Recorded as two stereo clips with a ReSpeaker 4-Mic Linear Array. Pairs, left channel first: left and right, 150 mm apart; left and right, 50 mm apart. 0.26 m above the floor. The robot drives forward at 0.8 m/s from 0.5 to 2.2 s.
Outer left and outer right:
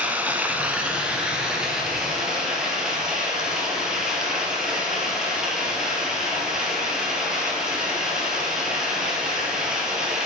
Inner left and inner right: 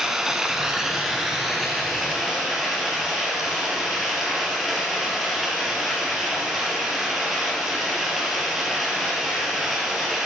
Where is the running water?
10° right (ahead or behind), 0.9 m; by 10.3 s 5° right (ahead or behind), 2.5 m.